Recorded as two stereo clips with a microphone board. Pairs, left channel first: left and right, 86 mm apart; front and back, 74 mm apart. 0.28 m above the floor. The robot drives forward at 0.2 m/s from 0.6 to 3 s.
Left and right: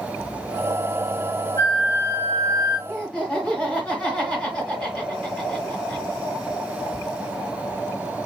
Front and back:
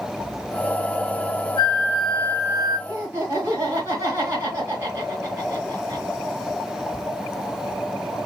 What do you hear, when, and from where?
1.6 s a flute: 145° right, 1.4 m; by 2.8 s 150° right, 1.6 m
2.9 s laughter: 165° left, 1.3 m